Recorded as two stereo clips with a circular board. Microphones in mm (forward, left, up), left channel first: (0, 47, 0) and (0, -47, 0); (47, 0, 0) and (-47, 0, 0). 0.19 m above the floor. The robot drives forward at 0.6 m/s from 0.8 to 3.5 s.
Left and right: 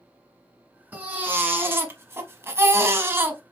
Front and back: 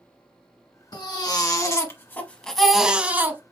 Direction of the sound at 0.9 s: 25° right.